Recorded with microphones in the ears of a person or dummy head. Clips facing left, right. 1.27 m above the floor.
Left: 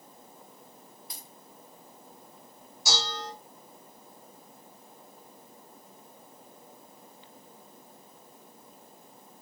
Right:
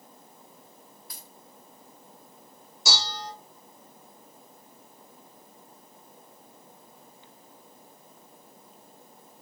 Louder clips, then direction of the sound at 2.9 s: Even; 55° right (ahead or behind).